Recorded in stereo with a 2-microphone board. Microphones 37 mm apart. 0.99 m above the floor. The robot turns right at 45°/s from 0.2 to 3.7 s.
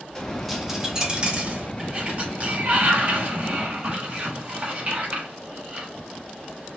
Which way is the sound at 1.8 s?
140° right.